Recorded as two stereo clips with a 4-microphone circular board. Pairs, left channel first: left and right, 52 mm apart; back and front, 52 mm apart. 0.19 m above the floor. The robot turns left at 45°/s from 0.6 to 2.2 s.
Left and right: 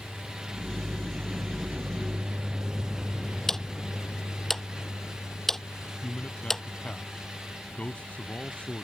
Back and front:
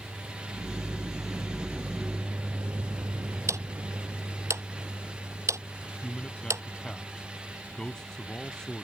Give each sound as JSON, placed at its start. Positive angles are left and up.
{"t": 0.0, "sound": "a vehicle", "azimuth_deg": -15}
{"t": 3.5, "sound": "ticking", "azimuth_deg": 10}
{"t": 5.8, "sound": "a man speaking", "azimuth_deg": 120}